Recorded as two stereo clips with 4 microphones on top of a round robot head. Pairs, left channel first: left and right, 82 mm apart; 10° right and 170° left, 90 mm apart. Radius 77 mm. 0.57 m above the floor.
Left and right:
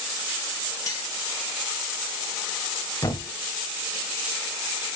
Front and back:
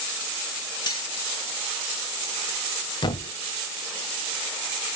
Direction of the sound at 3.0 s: 30° left.